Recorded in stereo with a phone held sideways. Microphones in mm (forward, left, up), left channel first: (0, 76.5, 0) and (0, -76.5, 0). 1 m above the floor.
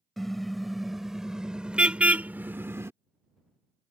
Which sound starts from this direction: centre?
A car horn, at 0.2 s.